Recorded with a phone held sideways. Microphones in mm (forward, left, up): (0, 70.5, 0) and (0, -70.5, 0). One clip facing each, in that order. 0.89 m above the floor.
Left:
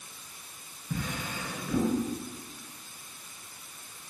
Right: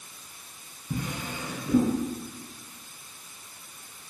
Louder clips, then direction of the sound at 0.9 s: Right 2 dB; 15° right (ahead or behind).